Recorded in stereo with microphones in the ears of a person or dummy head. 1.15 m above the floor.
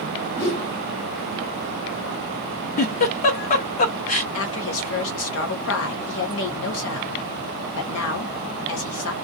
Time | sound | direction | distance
0.4 | a whoosh | 40° left (ahead or behind) | 1.5 m
2.8 | a giggle | 45° left (ahead or behind) | 0.6 m
4.3 | a woman speaking | 70° left (ahead or behind) | 1.0 m